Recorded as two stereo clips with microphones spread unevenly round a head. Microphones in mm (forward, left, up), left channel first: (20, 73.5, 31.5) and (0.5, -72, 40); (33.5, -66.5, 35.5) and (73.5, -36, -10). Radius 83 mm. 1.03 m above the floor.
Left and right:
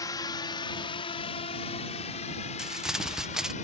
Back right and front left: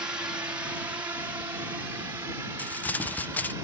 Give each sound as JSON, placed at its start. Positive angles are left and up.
{"t": 0.0, "sound": "a drone", "azimuth_deg": 20}
{"t": 2.6, "sound": "crumpling", "azimuth_deg": -10}